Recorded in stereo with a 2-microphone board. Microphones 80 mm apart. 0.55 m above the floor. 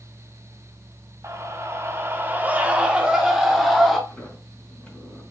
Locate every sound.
1.2 s a scream: 35° right (ahead or behind), 1.3 m; by 4.0 s centre (ahead or behind), 2 m
4.1 s a sliding door: 15° left (ahead or behind), 4 m